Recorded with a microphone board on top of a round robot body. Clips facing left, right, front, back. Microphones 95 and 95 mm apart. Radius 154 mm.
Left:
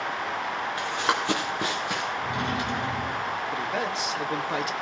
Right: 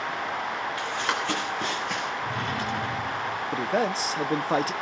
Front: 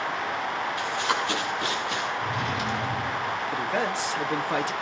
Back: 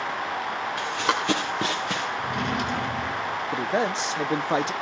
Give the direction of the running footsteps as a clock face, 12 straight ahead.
7 o'clock.